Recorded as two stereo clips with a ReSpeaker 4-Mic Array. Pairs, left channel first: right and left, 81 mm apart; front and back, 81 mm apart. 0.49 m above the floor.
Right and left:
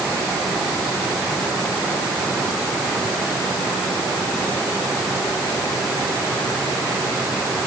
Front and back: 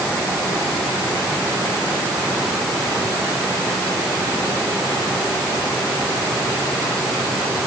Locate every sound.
Only background noise.